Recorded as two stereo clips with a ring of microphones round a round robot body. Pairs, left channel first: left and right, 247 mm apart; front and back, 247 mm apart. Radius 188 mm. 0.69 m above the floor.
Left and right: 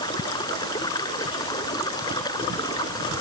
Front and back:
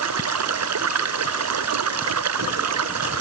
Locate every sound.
0.0 s running water: 170° left